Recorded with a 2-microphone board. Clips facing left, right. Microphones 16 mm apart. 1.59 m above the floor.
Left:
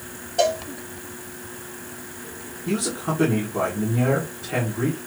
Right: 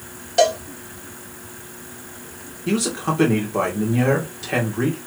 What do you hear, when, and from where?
0.4 s a cowbell: 55° right (ahead or behind), 1.2 m
2.7 s a man speaking: 45° right (ahead or behind), 1.9 m